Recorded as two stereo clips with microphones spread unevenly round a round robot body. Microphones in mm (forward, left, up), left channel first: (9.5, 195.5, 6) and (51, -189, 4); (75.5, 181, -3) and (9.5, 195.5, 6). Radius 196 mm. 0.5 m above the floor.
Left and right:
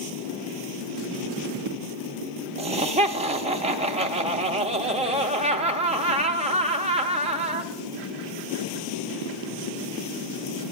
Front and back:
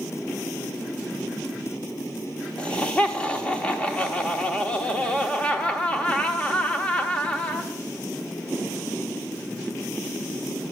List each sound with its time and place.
2.6 s laughter: 35° right, 0.7 m